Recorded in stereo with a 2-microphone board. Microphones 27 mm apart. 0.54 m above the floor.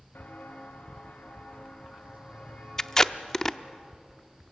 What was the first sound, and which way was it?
Footsteps, 80° left.